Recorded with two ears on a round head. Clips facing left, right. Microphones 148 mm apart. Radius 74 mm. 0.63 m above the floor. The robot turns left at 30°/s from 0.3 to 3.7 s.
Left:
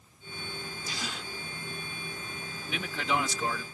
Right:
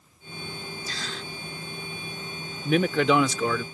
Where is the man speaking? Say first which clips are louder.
Right 12 dB; 45° right; by 3.6 s 75° right.